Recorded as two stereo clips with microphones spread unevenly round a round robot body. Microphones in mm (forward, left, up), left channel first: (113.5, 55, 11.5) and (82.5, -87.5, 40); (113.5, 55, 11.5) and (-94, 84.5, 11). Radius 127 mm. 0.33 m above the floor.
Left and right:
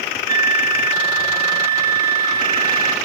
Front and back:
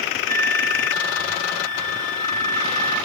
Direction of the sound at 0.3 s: 25° right.